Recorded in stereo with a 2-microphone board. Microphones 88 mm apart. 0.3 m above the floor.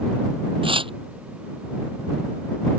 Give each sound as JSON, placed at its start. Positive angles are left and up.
{"t": 0.6, "sound": "tearing paper", "side_deg": -80}